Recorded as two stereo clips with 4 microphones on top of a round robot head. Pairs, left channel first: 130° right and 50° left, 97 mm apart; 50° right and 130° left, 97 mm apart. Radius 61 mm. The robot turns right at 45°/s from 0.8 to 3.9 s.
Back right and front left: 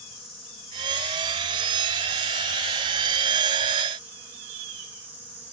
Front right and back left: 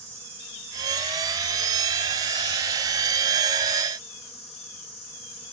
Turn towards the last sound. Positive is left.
turn(degrees=-25)